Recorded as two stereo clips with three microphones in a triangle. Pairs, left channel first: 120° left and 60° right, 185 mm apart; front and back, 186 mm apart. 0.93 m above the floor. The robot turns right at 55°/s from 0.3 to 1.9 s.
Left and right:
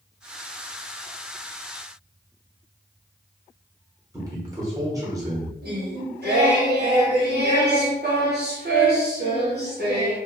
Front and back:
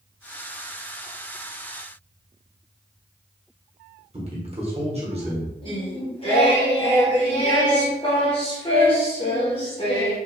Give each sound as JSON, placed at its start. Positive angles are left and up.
{"t": 4.1, "sound": "a man speaking", "azimuth_deg": -130, "distance_m": 1.1}
{"t": 5.6, "sound": "singing", "azimuth_deg": -60, "distance_m": 1.0}